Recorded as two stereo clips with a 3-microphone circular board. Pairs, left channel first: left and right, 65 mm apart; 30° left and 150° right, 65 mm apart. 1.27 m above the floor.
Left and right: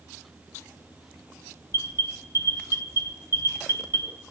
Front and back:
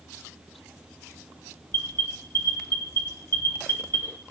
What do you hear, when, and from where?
1.7 s an alarm: 75° left, 1.5 m